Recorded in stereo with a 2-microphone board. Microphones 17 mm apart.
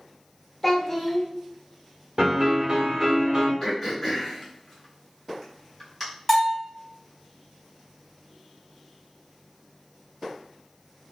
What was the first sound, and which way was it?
A child speaking, 10° left (ahead or behind).